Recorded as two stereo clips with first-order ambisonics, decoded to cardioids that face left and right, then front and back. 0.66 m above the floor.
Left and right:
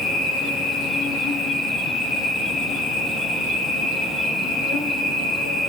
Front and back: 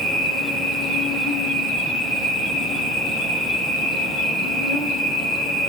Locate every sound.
0.0 s an insect: 55° left, 1.9 m